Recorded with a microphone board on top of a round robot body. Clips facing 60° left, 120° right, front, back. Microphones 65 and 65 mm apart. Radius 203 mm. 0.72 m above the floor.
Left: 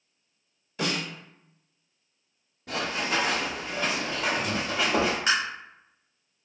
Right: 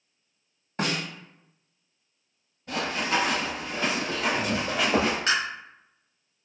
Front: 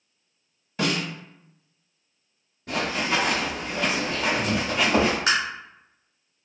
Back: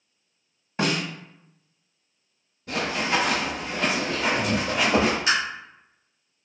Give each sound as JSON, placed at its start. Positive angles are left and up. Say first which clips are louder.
{"t": 0.8, "sound": "a snare drum", "louder": "right 1 dB, back 1 dB", "azimuth_deg": -140, "distance_m": 1.4}
{"t": 2.7, "sound": "running footsteps", "louder": "right 1 dB, even", "azimuth_deg": 45, "distance_m": 0.9}
{"t": 5.3, "sound": "tapping", "louder": "left 1 dB, even", "azimuth_deg": -20, "distance_m": 1.1}